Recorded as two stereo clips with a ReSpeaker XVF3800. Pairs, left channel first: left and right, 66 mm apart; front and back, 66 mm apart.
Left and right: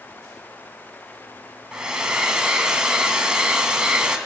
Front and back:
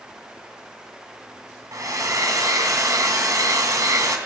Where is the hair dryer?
165° right, 2 m.